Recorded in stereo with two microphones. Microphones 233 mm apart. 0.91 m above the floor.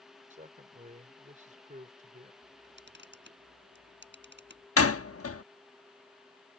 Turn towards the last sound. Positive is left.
turn(degrees=80)